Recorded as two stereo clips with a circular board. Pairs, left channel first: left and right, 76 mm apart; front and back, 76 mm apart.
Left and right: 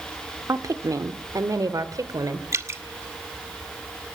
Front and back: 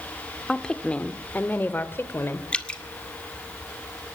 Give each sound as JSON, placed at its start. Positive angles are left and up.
{"t": 0.5, "sound": "a woman speaking", "azimuth_deg": -80, "distance_m": 1.2}
{"t": 2.5, "sound": "dripping", "azimuth_deg": -70, "distance_m": 1.6}